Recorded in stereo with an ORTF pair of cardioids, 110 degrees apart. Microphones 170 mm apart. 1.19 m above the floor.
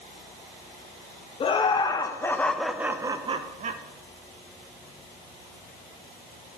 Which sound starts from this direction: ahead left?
Laughter, at 1.4 s.